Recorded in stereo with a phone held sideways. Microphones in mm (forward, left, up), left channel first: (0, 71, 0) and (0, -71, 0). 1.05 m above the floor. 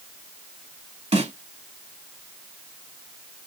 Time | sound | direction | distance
1.1 | a snare drum | 50° right (ahead or behind) | 1.7 m